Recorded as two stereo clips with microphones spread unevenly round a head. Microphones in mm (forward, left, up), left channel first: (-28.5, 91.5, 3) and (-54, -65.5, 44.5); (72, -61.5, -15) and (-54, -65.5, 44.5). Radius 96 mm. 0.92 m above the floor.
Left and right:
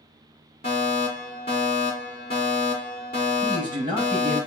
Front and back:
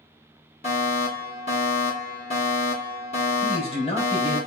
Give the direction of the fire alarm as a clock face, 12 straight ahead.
11 o'clock.